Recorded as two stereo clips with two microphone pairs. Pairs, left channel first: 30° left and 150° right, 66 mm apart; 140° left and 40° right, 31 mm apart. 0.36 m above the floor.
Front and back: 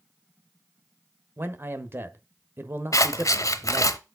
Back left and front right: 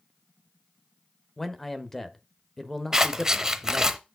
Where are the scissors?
30° left, 0.8 m.